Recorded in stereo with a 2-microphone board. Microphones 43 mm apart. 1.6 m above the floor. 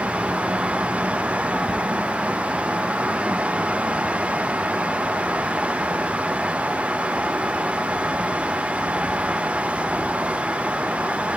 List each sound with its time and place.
Only background noise.